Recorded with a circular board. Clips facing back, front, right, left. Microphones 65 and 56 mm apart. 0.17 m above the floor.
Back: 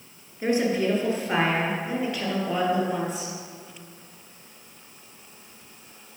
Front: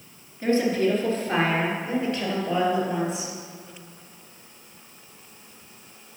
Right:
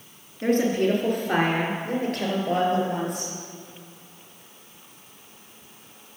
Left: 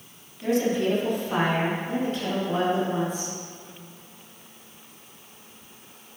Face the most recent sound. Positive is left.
turn(degrees=-90)